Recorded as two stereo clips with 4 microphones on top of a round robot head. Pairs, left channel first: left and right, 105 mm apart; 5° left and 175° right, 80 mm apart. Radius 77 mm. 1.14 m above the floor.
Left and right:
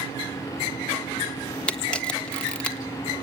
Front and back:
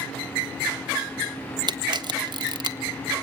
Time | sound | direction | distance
1.7 | a camera shutter | 170° left | 1.4 m